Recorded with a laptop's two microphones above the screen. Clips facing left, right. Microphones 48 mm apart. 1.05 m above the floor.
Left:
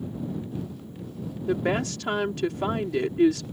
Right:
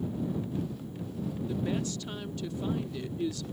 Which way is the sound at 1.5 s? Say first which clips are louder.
Left 9 dB; 85° left.